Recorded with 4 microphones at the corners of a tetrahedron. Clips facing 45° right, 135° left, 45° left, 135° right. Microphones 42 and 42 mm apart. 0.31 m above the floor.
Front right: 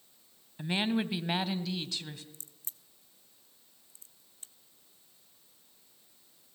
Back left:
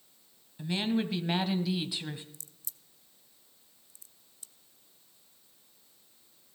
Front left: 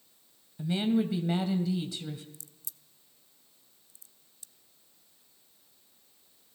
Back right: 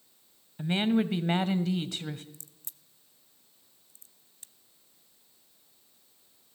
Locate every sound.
0.6 s a woman speaking: 100° right, 1.5 m; by 2.2 s 160° right, 1.5 m
2.3 s a crack: 90° right, 1.0 m